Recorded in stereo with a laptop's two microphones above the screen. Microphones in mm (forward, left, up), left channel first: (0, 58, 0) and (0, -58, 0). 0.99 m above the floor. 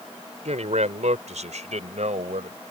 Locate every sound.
0.5 s a man speaking: 80° right